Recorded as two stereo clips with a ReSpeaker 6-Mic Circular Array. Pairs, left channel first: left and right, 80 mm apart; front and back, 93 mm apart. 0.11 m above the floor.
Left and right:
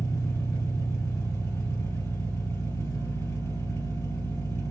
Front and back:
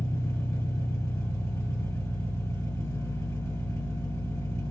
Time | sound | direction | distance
0.0 | an engine running | 45° left | 1.9 m